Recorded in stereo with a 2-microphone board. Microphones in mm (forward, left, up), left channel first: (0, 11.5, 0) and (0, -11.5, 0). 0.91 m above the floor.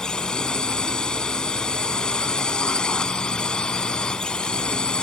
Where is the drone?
40° left (ahead or behind); by 5.0 s 45° left (ahead or behind).